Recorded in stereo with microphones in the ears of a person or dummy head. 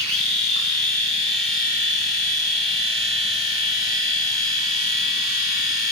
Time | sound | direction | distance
0.0 | a machine running | 65° right (ahead or behind) | 2.5 m